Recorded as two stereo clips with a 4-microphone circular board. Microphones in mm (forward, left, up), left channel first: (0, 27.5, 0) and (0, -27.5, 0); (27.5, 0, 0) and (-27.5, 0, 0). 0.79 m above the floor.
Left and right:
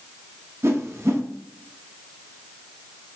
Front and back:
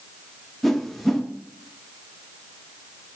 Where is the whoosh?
85° right, 0.6 m.